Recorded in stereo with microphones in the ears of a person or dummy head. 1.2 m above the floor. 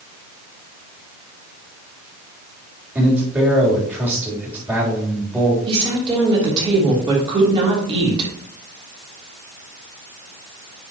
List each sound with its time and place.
3.0 s a man speaking: 10° right (ahead or behind), 3 m
5.7 s a woman speaking: 25° right (ahead or behind), 3 m